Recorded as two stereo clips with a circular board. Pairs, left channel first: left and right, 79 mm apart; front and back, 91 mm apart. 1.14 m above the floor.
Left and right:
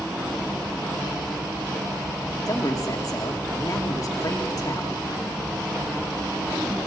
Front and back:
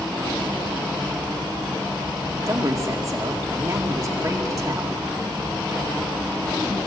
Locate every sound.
2.5 s a woman speaking: 130° left, 2 m